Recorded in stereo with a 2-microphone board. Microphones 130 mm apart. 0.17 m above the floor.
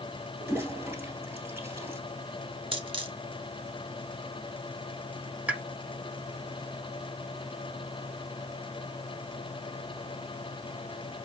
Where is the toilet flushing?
15° right (ahead or behind), 1.5 m.